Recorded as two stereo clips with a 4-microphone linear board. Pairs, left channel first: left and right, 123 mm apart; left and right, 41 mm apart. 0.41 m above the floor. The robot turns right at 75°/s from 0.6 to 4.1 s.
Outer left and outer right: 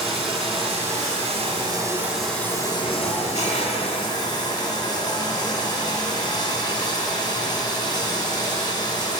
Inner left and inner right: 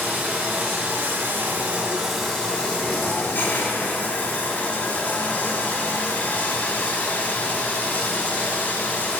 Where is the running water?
120° right, 2.5 m; by 9.2 s 140° left, 2.5 m.